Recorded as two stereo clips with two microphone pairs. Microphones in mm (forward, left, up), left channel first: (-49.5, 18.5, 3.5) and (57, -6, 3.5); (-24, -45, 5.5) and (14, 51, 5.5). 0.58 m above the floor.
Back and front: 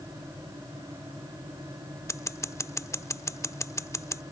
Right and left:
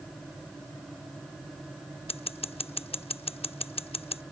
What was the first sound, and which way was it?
Scissors, 130° right.